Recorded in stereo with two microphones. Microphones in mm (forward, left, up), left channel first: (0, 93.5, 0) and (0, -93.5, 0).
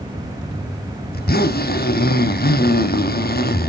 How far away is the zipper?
About 0.6 m.